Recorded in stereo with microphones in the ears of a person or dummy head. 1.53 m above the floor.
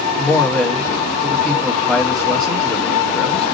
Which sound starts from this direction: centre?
A man speaking, at 0.2 s.